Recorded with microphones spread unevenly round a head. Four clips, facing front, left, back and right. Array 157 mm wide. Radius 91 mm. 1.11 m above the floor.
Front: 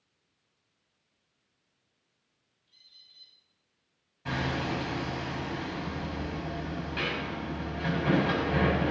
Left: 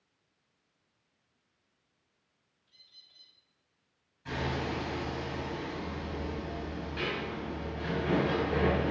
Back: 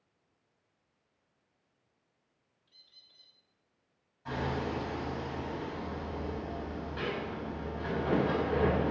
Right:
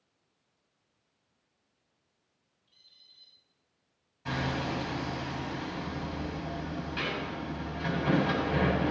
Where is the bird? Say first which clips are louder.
Left 2 dB, front 1 dB; 150° left, 1.7 m.